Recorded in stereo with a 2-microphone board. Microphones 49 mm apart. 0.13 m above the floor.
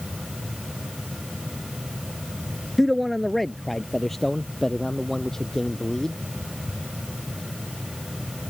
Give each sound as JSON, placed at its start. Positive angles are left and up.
{"t": 2.8, "sound": "a man speaking", "side_deg": 0}